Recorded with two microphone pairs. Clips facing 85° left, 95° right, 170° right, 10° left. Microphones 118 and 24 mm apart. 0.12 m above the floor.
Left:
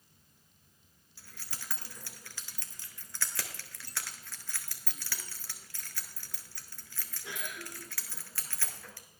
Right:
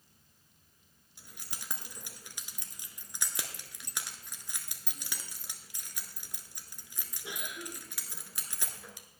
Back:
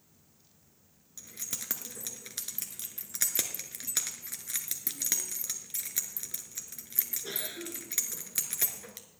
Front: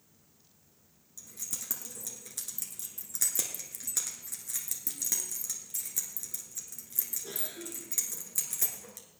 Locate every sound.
1.2 s keys jangling: 160° right, 1.2 m